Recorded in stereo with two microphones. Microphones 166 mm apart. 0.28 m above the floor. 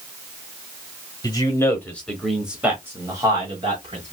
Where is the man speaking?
25° left (ahead or behind), 1.5 m; by 4.1 s 35° right (ahead or behind), 1.9 m.